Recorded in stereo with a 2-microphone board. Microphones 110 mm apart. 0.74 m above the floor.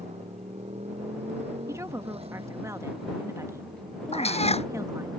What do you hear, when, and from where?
0.0 s a motorcycle: 80° right; by 5.2 s 40° right (ahead or behind)
1.7 s a woman speaking: 25° right (ahead or behind)
4.1 s a cat meowing: 70° left (ahead or behind)